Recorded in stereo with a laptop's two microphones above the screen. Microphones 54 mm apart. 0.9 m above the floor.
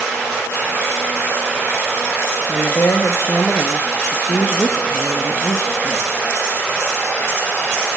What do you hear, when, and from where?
2.5 s a woman speaking: 55° left (ahead or behind), 1.0 m